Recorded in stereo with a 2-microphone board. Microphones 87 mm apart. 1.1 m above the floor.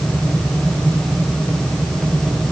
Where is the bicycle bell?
I don't hear a bicycle bell.